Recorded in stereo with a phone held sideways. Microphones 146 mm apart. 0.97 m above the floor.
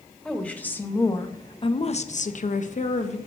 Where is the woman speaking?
10° left (ahead or behind), 1.3 m; by 3.2 s 50° left (ahead or behind), 0.9 m.